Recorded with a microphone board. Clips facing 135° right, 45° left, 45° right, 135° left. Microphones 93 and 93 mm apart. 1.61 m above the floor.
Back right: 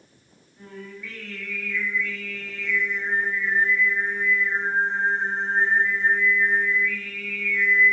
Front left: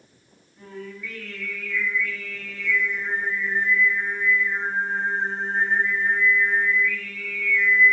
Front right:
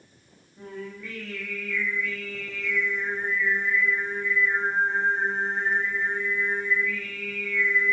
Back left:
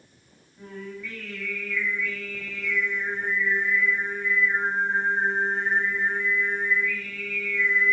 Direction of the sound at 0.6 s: 45° right.